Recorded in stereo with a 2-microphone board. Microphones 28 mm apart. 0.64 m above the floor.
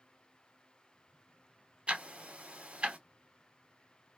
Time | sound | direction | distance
1.9 | ticking | 45° right (ahead or behind) | 0.7 m